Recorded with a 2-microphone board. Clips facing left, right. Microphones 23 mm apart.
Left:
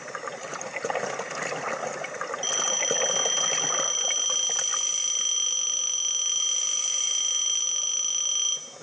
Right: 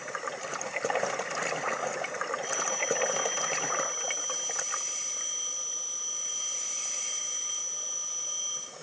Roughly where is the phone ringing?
Left.